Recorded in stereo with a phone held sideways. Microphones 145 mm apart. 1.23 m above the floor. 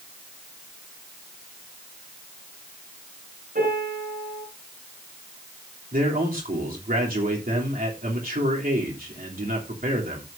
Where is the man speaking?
75° right (ahead or behind), 3 m.